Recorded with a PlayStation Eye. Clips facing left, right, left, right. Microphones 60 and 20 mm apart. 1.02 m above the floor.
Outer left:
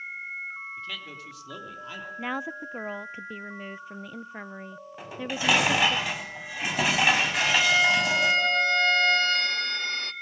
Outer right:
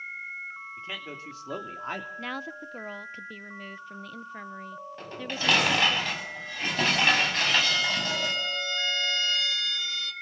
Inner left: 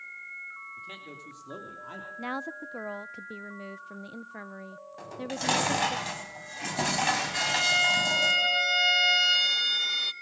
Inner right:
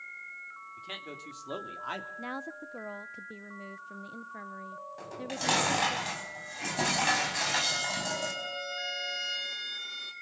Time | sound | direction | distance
0.8 | a man speaking | 25° right (ahead or behind) | 3 m
2.2 | a woman speaking | 15° left (ahead or behind) | 0.5 m
5.0 | dishes clattering | 10° left (ahead or behind) | 5.5 m
7.3 | a violin | 50° left (ahead or behind) | 0.9 m